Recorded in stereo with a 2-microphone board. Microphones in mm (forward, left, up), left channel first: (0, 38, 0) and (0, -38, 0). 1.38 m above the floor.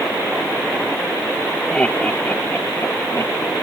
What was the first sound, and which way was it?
Laughter, 15° left (ahead or behind).